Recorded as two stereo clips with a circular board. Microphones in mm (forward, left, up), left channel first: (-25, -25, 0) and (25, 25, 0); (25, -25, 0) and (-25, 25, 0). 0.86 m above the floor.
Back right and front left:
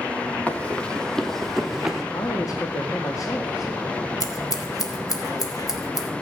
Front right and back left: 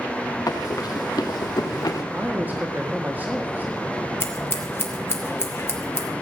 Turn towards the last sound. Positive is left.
turn(degrees=-100)